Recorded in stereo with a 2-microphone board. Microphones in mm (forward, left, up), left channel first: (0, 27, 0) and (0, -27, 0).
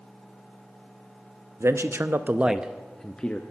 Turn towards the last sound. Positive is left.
turn(degrees=20)  # may be behind; listen again after turning